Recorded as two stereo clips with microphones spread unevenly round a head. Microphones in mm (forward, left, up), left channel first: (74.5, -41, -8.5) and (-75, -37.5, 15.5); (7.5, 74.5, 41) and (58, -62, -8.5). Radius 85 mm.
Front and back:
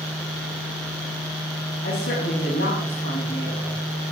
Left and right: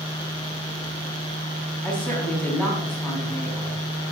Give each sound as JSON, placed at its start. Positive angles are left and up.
{"t": 1.8, "sound": "a woman speaking", "azimuth_deg": 25, "distance_m": 7.5}